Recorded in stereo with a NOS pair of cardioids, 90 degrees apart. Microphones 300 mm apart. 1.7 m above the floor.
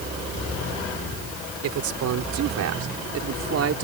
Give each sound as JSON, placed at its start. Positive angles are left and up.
{"t": 1.6, "sound": "a man speaking", "azimuth_deg": -70}